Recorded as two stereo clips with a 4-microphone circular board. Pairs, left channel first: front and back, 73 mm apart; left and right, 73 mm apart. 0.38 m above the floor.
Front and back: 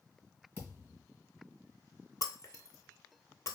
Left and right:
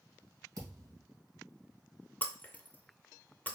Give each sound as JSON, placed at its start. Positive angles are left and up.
{"t": 0.6, "sound": "a thud", "azimuth_deg": -65, "distance_m": 1.9}
{"t": 2.2, "sound": "breaking glass", "azimuth_deg": 25, "distance_m": 0.6}